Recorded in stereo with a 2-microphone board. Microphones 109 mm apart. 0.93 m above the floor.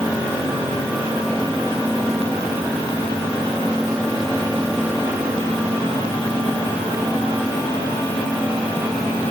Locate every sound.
Only background noise.